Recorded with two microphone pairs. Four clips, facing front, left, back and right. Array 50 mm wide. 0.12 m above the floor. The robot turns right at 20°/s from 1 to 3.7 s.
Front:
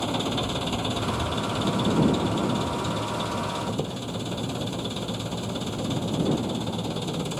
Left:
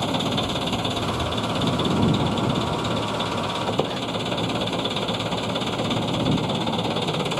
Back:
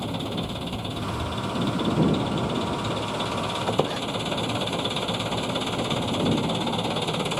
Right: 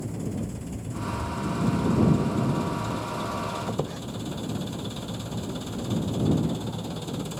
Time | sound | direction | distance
0.0 | an engine running | 75° left | ?
3.7 | a squeak | 150° left | ?